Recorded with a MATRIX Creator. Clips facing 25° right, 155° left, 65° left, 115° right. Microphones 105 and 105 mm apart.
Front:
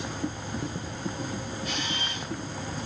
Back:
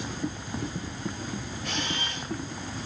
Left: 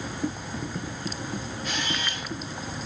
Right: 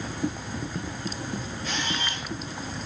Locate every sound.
1.6 s a camera shutter: 150° left, 6.5 m